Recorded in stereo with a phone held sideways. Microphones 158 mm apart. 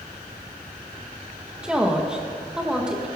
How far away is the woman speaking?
About 1.5 m.